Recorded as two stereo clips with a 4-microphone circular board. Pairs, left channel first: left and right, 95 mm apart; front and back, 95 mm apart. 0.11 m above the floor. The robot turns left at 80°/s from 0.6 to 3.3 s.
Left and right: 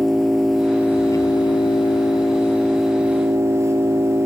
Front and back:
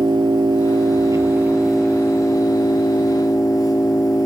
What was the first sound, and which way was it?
An engine running, straight behind.